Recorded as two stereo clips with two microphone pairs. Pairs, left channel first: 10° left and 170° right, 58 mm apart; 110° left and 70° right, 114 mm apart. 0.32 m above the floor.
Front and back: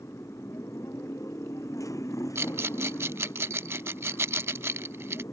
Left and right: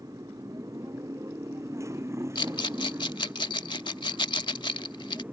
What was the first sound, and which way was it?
A motorcycle, 15° right.